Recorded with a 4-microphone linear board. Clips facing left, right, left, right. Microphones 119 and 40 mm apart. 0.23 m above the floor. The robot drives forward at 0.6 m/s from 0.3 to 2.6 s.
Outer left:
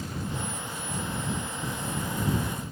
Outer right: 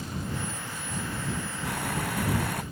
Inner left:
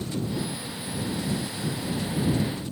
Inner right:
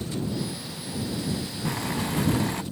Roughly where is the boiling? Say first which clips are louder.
Outer right 3 dB, inner right 3 dB; right.